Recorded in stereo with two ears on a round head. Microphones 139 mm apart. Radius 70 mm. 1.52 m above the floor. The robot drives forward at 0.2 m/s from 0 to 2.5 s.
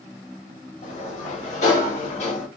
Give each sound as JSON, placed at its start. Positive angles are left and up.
{"t": 0.8, "sound": "a sliding door", "side_deg": 45, "distance_m": 1.3}